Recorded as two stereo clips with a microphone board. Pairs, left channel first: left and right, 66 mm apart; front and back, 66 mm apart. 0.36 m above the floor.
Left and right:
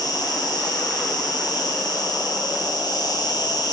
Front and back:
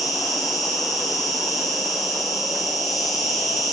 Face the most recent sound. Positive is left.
turn(degrees=90)